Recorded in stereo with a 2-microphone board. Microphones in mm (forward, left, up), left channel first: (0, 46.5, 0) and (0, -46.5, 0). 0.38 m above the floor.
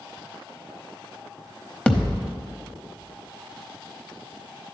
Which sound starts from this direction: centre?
A thud, at 1.9 s.